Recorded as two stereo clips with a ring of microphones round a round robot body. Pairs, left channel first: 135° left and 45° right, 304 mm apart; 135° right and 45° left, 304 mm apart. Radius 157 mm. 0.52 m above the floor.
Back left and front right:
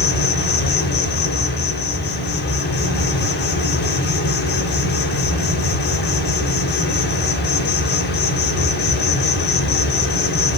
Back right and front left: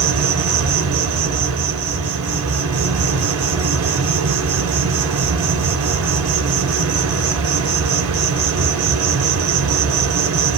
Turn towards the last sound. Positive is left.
turn(degrees=80)